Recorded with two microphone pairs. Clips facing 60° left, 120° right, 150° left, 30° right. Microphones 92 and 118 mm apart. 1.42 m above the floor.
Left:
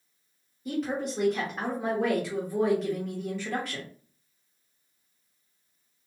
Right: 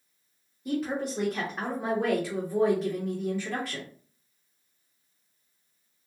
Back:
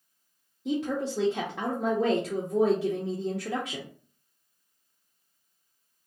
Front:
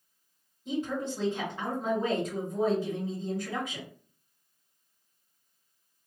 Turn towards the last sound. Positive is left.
turn(degrees=150)